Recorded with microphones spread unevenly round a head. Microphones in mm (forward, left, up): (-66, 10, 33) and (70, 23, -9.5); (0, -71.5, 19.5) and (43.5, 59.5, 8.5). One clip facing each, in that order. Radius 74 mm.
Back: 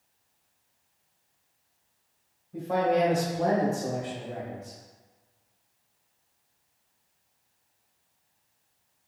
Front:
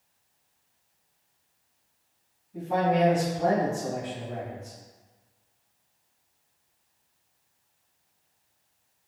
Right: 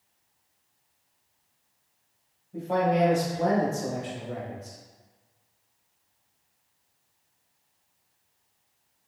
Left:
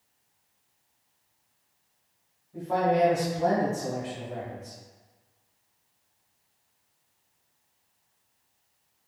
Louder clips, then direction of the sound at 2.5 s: Even, even; 170° right.